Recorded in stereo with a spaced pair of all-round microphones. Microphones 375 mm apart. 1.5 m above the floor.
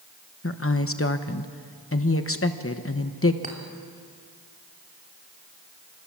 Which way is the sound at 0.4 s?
35° left (ahead or behind).